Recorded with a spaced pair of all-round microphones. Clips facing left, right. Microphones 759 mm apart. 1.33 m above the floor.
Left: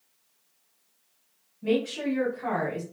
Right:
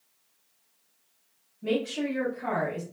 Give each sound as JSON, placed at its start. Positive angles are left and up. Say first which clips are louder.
{"t": 1.6, "sound": "a woman speaking", "louder": "left 2 dB", "side_deg": -5, "distance_m": 1.0}